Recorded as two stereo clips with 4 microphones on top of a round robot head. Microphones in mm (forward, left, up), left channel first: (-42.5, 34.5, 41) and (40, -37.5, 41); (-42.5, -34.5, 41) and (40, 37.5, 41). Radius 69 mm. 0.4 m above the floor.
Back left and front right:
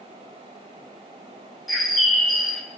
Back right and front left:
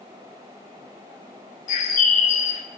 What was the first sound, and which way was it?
A bird, 130° right.